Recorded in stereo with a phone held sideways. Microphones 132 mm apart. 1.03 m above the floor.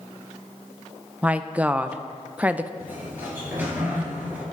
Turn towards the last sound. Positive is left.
turn(degrees=-15)  # may be behind; listen again after turning